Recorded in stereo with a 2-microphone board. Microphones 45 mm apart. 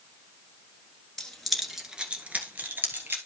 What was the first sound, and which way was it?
Keys jangling, 15° left (ahead or behind).